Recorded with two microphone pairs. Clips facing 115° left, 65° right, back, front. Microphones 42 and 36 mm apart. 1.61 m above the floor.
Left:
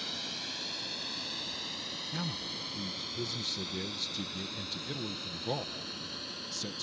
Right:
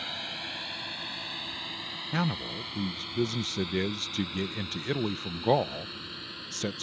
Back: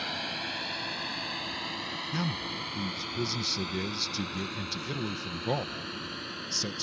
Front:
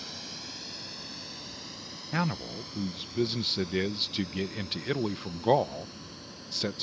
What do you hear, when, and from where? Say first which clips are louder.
0.0 s a drone: right 3 dB, back 8 dB; 130° right; by 6.8 s 140° right
2.1 s a man speaking: right 10 dB, front 4 dB; 45° right